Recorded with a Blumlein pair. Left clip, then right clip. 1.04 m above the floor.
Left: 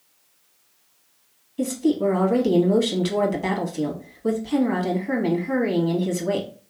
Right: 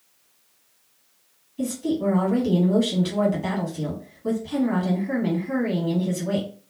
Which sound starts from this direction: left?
A woman speaking, at 1.6 s.